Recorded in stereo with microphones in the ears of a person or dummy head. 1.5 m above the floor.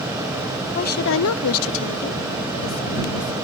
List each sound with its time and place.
0.8 s a woman speaking: 40° left (ahead or behind)